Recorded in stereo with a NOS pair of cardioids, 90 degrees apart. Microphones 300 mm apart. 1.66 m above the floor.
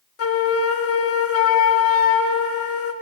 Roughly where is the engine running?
No engine running in this recording.